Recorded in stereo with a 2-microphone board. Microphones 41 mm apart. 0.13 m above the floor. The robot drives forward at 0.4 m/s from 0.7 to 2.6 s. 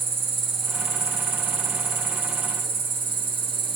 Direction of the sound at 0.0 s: 60° right (ahead or behind).